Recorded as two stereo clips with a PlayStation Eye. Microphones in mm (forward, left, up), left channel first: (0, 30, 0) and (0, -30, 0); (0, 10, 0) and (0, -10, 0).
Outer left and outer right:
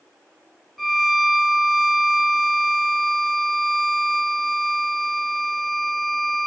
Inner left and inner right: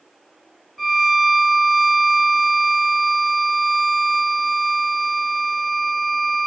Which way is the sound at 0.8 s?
Centre (ahead or behind).